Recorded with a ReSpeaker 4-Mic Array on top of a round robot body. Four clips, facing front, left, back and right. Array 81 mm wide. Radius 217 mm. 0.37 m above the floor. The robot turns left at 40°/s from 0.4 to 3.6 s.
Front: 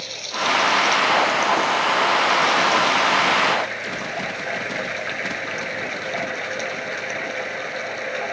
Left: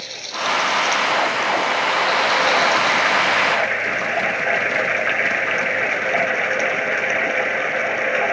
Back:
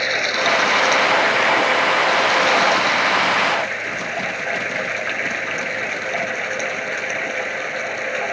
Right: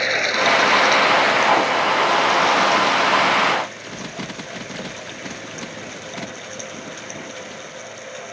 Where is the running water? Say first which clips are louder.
Right 7 dB, back 6 dB; 135° right; by 8.3 s 100° left.